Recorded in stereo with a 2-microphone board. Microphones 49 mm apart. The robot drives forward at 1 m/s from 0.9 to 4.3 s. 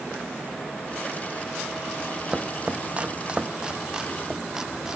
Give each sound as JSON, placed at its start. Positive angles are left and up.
{"t": 2.3, "sound": "chopping", "side_deg": -20, "distance_m": 0.9}